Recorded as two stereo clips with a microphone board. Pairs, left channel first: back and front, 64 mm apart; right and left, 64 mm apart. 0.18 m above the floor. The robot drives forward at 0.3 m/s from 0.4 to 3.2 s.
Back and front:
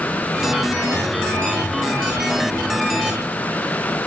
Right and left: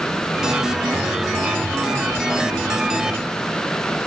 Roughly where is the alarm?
I don't hear an alarm.